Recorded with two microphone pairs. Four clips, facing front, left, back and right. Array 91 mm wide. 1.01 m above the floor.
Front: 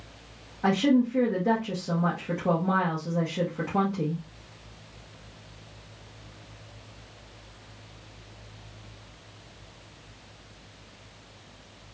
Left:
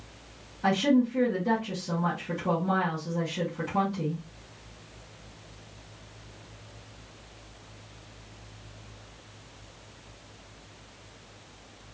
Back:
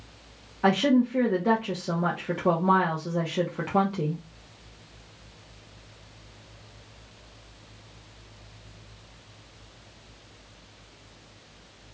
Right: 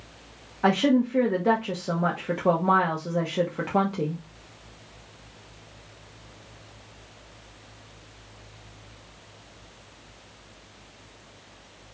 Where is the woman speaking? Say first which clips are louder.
Right 2 dB, back 1 dB; 110° right, 0.7 m.